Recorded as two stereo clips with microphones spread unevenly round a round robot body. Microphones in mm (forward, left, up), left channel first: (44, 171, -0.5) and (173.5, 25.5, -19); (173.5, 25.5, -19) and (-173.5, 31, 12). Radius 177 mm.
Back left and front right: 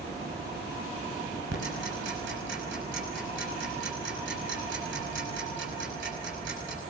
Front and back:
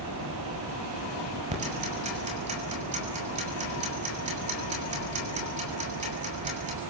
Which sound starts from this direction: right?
Ticking, at 1.5 s.